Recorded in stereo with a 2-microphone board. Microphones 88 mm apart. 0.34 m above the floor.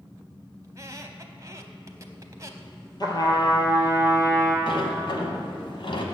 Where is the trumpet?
50° left (ahead or behind), 1.5 m.